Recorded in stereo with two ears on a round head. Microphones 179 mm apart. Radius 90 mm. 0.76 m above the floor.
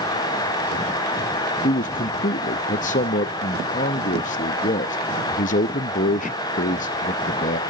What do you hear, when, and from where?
1.6 s a man speaking: 40° left (ahead or behind), 0.6 m